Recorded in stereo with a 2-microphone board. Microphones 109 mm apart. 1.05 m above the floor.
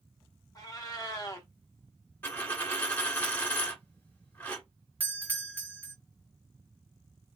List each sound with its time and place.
0.6 s a cat meowing: 35° left (ahead or behind), 0.7 m
2.2 s a dropped coin: 20° left (ahead or behind), 1.0 m
5.0 s a doorbell: 15° right (ahead or behind), 0.6 m